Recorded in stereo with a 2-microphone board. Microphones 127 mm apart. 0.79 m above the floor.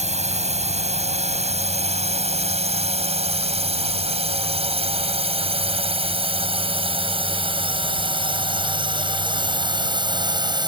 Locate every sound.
0.0 s a drone: 60° right (ahead or behind); by 10.7 s 35° right (ahead or behind)